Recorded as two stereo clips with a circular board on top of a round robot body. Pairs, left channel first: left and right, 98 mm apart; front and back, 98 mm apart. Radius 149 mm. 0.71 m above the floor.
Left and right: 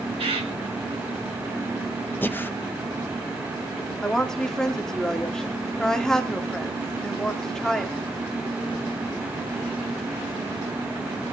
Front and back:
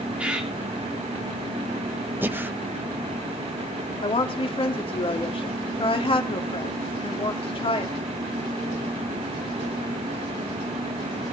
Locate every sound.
0.2 s a bird: 105° right, 3.5 m
2.2 s breathing: 135° left, 1.0 m
4.0 s a woman speaking: 10° left, 2 m